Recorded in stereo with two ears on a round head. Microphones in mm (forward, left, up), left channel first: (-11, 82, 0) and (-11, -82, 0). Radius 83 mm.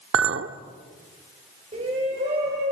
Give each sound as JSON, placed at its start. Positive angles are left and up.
{"t": 0.1, "sound": "a clink", "side_deg": -70, "distance_m": 1.1}
{"t": 1.7, "sound": "a shout", "side_deg": -30, "distance_m": 3.5}